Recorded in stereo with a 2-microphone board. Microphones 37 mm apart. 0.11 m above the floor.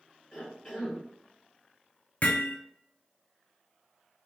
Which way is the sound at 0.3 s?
Centre (ahead or behind).